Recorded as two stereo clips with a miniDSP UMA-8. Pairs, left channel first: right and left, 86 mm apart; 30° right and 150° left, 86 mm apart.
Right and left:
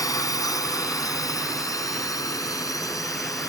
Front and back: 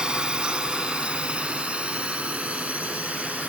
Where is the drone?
130° right; by 3.5 s 135° right.